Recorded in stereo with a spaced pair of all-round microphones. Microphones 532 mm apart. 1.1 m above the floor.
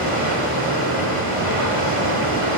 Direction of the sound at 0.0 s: 75° left (ahead or behind).